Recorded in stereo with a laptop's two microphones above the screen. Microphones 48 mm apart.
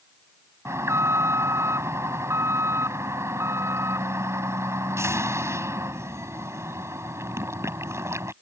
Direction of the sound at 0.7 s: 80° right.